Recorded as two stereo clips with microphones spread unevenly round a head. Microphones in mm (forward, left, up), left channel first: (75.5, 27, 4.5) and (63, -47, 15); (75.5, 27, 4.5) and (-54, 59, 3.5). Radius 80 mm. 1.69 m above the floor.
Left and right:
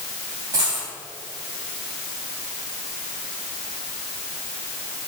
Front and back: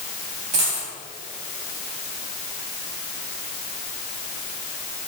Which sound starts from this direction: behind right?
A dropped coin, at 0.5 s.